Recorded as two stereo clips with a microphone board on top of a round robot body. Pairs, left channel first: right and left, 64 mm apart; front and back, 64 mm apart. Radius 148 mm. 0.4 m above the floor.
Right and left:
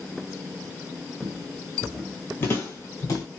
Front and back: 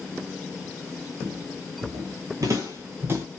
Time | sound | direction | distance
1.2 | footsteps | 135° left | 0.6 m